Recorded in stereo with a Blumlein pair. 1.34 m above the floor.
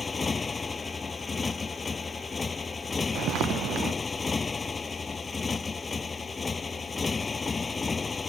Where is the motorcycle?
15° left.